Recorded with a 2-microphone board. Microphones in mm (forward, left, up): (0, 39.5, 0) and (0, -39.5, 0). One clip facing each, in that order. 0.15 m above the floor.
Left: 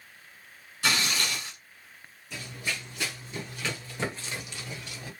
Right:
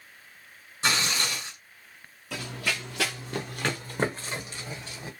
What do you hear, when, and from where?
0.8 s tearing paper: 25° right (ahead or behind), 1.8 m
2.3 s running footsteps: 70° right (ahead or behind), 0.9 m; by 5.1 s 25° right (ahead or behind), 1.7 m